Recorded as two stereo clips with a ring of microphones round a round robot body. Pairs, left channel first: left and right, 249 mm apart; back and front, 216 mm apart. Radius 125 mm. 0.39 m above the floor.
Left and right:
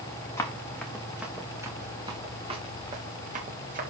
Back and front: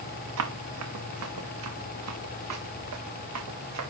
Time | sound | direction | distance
0.4 | running footsteps | 10° left | 2.5 m